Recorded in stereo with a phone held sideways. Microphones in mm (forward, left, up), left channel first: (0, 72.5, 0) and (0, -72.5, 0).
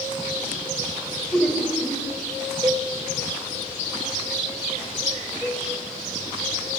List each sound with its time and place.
1.3 s laughter: 5° left (ahead or behind), 3.5 m
2.6 s a cowbell: 25° right (ahead or behind), 0.6 m
5.4 s a cowbell: 20° left (ahead or behind), 6 m